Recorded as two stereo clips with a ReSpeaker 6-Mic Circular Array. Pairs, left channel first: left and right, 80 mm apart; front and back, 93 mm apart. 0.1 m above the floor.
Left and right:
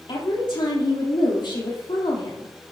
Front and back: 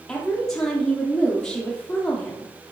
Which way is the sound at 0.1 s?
80° left.